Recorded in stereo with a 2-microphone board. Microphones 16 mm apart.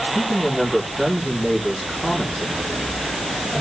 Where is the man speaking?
35° right (ahead or behind), 9 m.